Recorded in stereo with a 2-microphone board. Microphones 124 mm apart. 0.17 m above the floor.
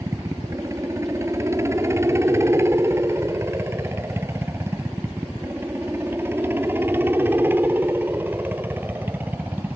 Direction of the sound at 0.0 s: 25° right (ahead or behind).